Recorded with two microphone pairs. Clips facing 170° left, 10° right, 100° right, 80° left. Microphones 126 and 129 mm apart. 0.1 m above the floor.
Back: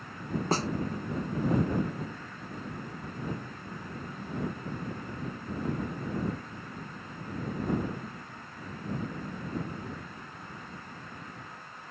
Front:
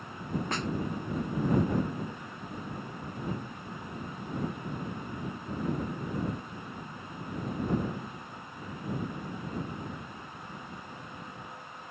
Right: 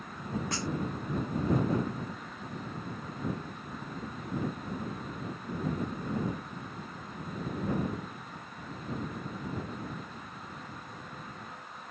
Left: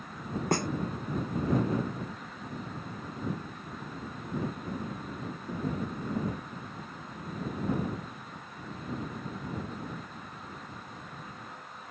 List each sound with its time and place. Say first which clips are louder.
0.5 s a snare drum: back 8 dB, left 6 dB; 115° left